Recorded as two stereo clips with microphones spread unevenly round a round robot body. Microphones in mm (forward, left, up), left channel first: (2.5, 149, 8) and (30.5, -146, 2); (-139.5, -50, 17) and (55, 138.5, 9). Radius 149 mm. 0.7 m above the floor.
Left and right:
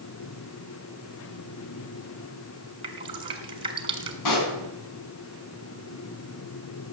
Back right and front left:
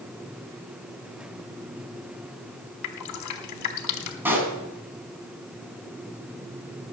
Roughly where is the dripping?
Behind.